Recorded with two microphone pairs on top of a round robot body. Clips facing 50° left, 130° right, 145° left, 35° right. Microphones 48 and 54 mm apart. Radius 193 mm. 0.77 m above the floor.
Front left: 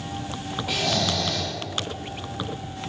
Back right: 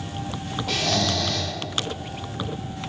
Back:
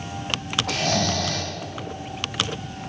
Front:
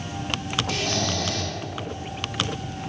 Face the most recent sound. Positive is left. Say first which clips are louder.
# back right 1 dB, back 5 dB
turn(degrees=125)